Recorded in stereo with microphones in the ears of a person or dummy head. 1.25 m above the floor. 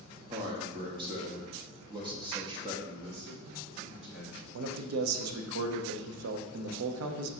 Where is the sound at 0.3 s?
30° right (ahead or behind), 0.6 m.